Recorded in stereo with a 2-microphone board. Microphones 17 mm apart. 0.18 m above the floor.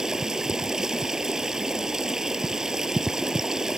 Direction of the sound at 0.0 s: 30° right (ahead or behind).